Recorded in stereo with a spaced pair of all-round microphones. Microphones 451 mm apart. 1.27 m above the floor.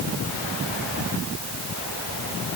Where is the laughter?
No laughter in this recording.